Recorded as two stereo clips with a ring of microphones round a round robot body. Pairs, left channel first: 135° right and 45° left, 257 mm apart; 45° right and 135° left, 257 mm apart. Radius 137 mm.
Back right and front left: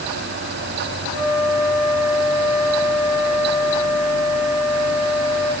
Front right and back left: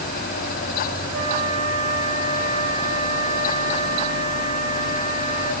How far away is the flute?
About 8.5 m.